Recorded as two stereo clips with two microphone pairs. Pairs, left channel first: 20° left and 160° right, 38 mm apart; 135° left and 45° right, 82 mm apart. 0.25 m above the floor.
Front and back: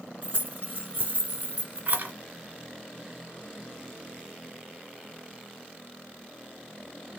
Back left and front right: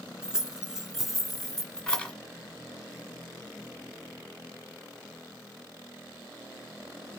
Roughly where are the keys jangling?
Behind right.